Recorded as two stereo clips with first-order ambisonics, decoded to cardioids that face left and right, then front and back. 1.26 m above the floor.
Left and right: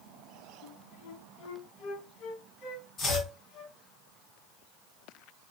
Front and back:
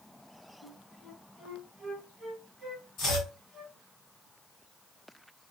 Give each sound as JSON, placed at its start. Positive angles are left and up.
{"t": 0.6, "sound": "a flute", "azimuth_deg": 90, "distance_m": 0.9}
{"t": 3.0, "sound": "chopping", "azimuth_deg": 30, "distance_m": 1.3}